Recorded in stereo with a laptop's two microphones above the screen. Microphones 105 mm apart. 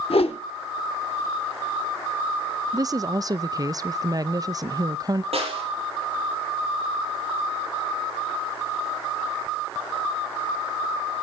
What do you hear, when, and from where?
0.1 s a whoosh: 65° left (ahead or behind), 0.9 m
2.7 s a woman speaking: 35° right (ahead or behind), 0.5 m
5.3 s a snare drum: 70° right (ahead or behind), 6.5 m